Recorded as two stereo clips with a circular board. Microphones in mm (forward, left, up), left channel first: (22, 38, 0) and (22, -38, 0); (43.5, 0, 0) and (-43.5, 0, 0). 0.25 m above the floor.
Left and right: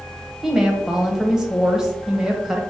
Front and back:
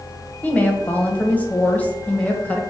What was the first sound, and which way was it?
A woman speaking, 20° right.